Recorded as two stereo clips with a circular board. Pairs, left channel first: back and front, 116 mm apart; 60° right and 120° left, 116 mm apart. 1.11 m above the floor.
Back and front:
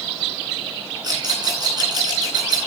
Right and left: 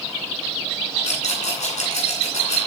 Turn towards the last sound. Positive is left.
turn(degrees=-55)